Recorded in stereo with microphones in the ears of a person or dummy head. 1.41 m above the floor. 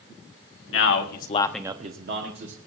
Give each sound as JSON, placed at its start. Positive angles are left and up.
{"t": 0.7, "sound": "a man speaking", "side_deg": 65, "distance_m": 1.4}